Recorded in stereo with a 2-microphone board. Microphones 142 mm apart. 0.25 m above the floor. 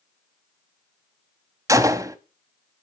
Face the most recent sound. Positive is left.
turn(degrees=-25)  # may be behind; listen again after turning